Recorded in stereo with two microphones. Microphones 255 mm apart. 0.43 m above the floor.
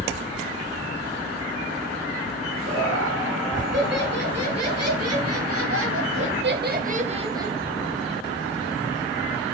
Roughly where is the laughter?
Right.